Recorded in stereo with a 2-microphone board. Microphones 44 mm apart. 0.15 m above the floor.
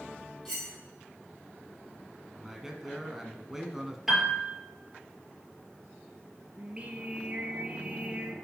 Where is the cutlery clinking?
10° left (ahead or behind), 3 m.